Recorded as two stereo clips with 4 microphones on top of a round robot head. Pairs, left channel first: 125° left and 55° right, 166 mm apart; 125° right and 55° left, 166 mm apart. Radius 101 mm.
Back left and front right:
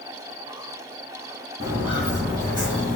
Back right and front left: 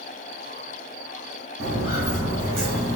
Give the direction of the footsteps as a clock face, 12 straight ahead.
12 o'clock.